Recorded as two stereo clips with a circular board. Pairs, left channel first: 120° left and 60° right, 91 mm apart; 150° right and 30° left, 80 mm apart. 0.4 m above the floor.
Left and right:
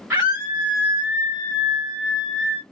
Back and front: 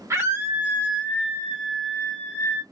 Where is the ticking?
I don't hear ticking.